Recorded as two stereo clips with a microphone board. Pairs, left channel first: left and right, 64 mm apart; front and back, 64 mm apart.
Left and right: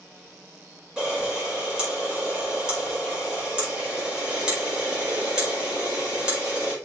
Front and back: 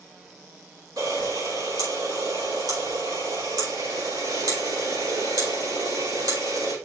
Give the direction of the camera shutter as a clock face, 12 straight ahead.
6 o'clock.